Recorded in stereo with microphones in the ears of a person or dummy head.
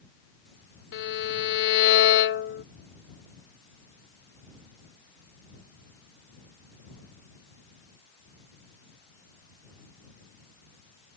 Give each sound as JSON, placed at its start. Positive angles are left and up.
{"t": 0.9, "sound": "a violin", "side_deg": 65}